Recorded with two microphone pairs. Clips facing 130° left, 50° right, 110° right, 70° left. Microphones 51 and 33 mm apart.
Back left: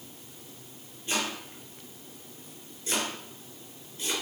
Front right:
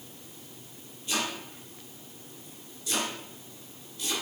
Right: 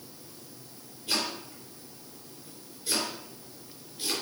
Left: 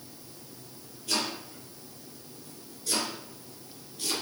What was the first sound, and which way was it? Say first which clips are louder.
Chopping: even, even; straight behind.